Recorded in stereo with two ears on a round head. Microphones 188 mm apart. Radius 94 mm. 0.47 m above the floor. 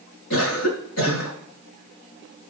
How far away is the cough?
About 7 m.